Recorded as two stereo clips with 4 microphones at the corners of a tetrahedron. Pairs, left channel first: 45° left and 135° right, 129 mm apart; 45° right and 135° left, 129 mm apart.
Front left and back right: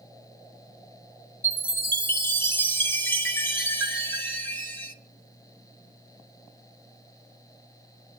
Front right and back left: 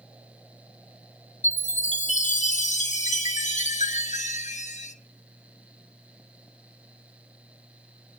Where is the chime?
30° right, 1.4 m.